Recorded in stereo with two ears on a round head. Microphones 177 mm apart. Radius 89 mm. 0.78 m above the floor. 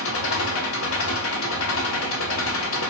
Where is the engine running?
75° left (ahead or behind), 0.9 m.